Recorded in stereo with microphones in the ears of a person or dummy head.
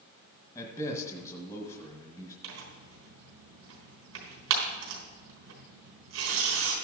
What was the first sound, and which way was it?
A man speaking, 30° left (ahead or behind).